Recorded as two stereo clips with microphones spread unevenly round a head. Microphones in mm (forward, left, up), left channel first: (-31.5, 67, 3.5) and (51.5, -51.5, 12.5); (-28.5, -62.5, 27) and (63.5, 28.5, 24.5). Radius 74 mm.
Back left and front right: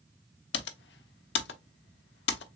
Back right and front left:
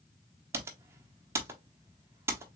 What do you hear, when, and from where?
0.5 s typing on a keyboard: 120° left, 0.6 m